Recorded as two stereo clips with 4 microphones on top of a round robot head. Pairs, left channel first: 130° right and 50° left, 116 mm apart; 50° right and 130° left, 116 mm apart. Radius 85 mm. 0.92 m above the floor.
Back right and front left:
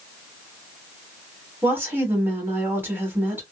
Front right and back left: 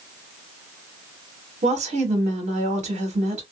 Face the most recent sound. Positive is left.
turn(degrees=125)